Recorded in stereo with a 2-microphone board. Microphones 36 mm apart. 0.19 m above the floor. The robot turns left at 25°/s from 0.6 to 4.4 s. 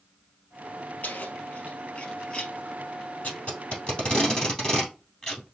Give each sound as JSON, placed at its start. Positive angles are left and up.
{"t": 1.0, "sound": "keys jangling", "side_deg": 60, "distance_m": 2.5}
{"t": 3.2, "sound": "tape being pulled", "side_deg": 45, "distance_m": 2.5}